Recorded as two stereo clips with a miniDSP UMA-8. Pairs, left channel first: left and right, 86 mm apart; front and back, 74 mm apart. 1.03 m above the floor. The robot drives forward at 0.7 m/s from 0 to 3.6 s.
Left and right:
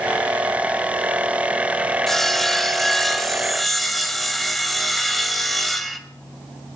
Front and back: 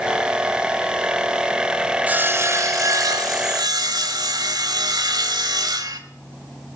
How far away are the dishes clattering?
I don't hear dishes clattering.